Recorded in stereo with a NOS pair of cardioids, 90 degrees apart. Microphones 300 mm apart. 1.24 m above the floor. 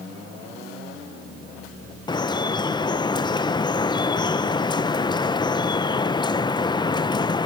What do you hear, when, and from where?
2.1 s dripping: 15° left, 0.6 m